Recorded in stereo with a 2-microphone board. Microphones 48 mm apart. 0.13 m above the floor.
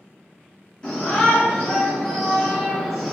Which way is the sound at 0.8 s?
20° left (ahead or behind).